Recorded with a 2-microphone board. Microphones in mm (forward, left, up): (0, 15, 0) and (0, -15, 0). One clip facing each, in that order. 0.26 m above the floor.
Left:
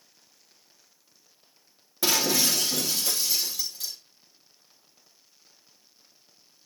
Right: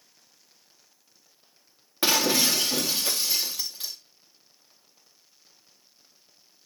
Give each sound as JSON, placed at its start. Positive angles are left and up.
{"t": 2.0, "sound": "breaking glass", "side_deg": -35, "distance_m": 3.5}